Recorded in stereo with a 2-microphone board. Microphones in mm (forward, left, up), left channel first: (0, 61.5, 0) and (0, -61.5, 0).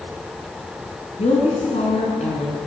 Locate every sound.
1.2 s a woman speaking: 70° left (ahead or behind), 4 m